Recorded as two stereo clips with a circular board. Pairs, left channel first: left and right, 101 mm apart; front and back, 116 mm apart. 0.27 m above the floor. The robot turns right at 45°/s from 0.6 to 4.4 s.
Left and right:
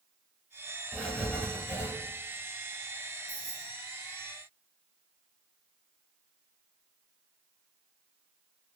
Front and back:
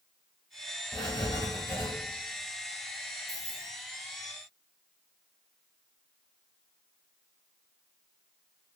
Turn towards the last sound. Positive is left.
turn(degrees=-165)